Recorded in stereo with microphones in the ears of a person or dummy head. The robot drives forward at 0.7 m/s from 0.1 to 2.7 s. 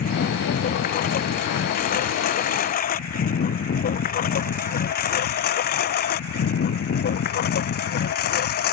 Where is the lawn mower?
45° left (ahead or behind); by 8.7 s 55° left (ahead or behind).